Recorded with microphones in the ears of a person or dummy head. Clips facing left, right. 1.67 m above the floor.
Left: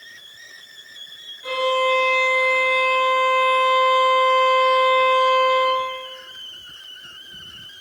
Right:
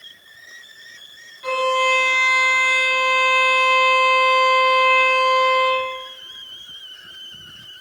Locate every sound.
1.4 s a violin: 70° right (ahead or behind), 1.4 m